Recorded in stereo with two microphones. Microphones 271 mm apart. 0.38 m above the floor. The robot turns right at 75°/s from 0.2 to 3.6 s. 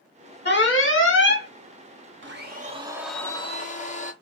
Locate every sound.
0.5 s an alarm: 55° left, 0.8 m; by 1.5 s 130° left, 0.8 m
2.2 s a blender: 65° right, 0.6 m; by 4.1 s 35° left, 0.6 m